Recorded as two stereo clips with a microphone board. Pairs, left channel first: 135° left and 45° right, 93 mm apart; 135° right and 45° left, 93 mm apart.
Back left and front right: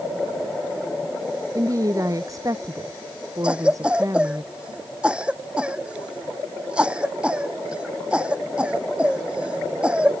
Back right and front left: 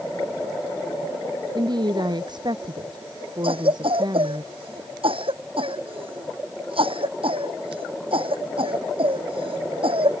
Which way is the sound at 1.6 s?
5° left.